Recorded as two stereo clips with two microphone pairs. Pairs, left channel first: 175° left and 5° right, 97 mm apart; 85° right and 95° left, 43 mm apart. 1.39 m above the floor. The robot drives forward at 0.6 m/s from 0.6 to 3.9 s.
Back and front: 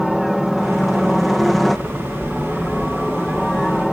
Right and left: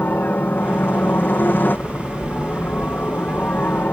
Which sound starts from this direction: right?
A helicopter, at 0.0 s.